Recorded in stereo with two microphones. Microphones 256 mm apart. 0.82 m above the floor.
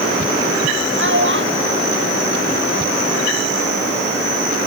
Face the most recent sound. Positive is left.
turn(degrees=-40)  # may be behind; listen again after turning